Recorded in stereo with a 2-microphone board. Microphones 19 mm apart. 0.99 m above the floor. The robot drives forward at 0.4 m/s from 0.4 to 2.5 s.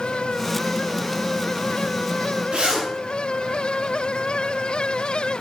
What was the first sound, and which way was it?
A zipper, 75° right (ahead or behind).